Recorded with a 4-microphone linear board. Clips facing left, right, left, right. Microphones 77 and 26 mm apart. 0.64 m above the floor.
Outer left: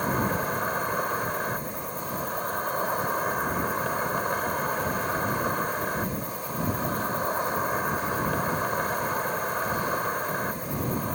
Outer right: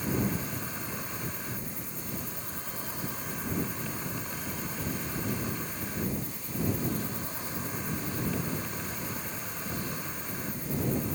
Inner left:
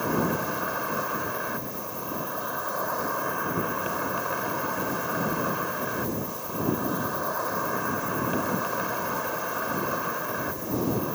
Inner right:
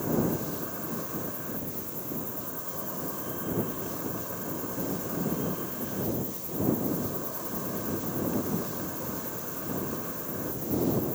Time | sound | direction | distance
0.0 | an insect | 60° left (ahead or behind) | ?